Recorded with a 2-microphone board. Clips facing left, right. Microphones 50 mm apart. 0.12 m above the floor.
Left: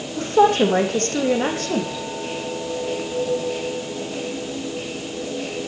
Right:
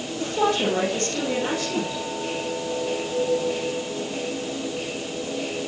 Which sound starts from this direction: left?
A woman speaking, at 0.2 s.